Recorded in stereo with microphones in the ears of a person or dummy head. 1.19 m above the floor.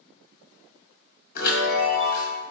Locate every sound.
1.4 s a chime: 55° left (ahead or behind), 1.9 m